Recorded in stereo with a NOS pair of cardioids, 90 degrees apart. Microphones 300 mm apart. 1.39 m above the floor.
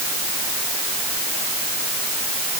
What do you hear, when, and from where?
Only background noise.